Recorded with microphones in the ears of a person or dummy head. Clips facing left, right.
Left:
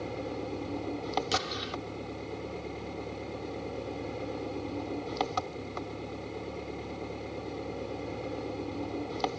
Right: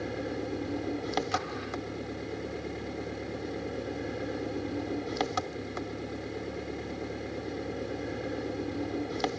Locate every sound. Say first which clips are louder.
0.0 s an engine running: right 2 dB; 20° right (ahead or behind)
1.3 s an explosion: even; 40° left (ahead or behind)